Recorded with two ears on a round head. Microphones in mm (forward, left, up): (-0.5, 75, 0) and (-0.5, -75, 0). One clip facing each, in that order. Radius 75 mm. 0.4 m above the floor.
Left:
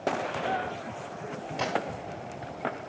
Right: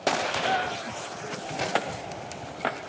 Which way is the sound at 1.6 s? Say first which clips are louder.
Even; 10° right (ahead or behind).